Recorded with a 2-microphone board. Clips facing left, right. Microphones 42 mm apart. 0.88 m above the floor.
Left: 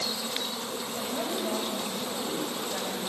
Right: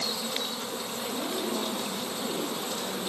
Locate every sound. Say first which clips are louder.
1.0 s a woman speaking: left 1 dB; 70° left (ahead or behind), 4.5 m